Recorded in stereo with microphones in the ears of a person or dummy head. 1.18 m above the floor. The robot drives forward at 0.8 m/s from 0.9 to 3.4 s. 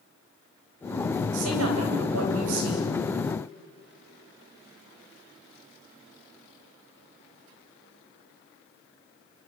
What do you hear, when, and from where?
1.3 s a woman speaking: 85° right, 7.5 m; by 2.9 s 80° right, 7.5 m